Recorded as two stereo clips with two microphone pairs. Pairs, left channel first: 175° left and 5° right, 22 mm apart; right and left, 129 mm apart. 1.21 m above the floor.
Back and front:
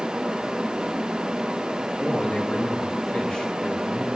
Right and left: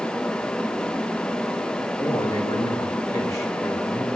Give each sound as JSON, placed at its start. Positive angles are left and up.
{"t": 2.0, "sound": "a man speaking", "azimuth_deg": -150, "distance_m": 2.5}